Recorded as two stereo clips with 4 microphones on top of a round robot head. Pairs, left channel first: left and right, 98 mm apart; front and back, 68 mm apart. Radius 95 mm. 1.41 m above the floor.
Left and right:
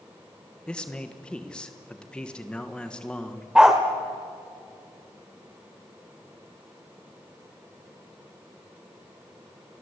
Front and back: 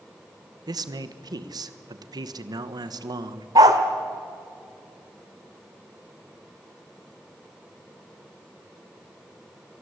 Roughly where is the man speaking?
Behind.